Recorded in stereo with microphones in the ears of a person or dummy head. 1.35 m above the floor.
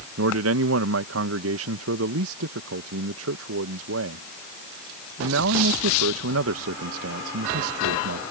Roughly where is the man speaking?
Right.